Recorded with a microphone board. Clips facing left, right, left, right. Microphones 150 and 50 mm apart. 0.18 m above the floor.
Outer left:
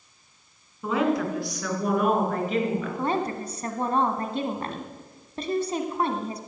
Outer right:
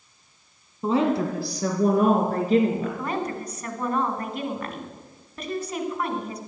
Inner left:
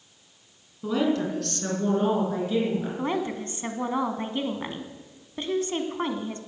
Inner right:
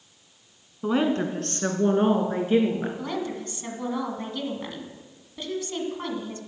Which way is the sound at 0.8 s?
30° right (ahead or behind).